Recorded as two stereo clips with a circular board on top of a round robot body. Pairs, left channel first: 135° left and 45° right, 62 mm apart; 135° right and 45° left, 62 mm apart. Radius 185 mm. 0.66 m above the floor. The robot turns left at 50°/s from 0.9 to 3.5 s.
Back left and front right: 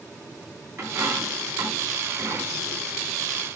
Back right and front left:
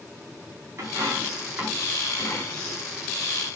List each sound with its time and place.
0.8 s a dropped coin: straight ahead, 4 m; by 2.8 s 95° right, 4 m